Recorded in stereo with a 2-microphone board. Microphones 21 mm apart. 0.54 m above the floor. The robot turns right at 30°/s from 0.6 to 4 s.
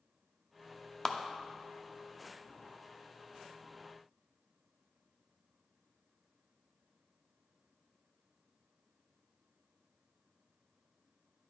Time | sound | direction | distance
1.1 | a clap | centre (ahead or behind) | 0.6 m